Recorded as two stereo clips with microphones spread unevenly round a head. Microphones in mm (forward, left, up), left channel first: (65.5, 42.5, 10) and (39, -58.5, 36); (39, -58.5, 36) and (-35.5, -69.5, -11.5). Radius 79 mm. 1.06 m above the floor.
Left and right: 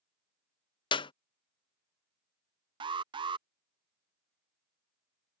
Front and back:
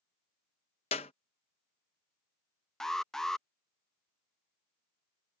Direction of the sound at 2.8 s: 65° right.